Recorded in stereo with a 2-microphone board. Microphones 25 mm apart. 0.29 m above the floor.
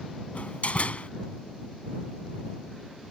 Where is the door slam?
60° left (ahead or behind).